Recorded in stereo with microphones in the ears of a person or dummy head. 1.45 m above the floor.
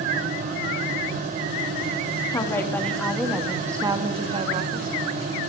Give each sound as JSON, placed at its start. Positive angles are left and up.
{"t": 2.3, "sound": "a woman speaking", "side_deg": 20, "distance_m": 3.5}